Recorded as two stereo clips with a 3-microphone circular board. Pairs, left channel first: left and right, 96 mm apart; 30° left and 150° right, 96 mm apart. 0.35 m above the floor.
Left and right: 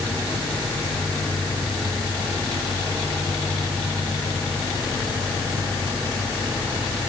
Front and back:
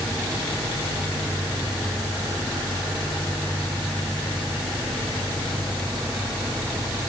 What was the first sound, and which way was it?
Only background noise.